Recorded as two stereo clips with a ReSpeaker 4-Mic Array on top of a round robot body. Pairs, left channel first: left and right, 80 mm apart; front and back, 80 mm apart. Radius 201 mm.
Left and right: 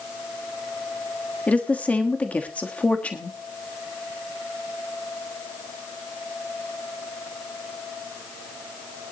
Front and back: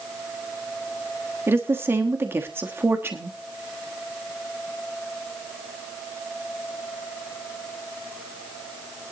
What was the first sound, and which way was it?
A woman speaking, 150° left.